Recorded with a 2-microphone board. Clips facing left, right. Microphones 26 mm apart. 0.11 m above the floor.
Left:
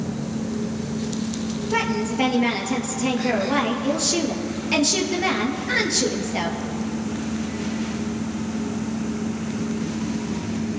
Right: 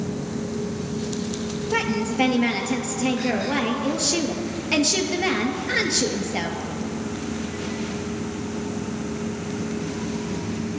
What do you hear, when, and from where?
1.7 s a woman speaking: 5° right (ahead or behind), 2 m